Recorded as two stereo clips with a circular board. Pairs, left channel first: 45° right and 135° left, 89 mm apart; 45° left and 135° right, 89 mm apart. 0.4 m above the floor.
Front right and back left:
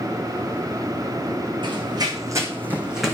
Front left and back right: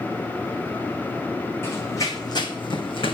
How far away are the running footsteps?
About 1.4 m.